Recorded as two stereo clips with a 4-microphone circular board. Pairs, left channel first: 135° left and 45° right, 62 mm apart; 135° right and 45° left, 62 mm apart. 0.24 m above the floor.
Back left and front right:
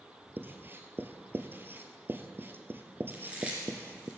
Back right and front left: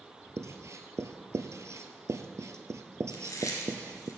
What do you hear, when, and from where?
0.4 s writing: 10° left, 0.9 m
3.1 s chewing: 115° right, 3 m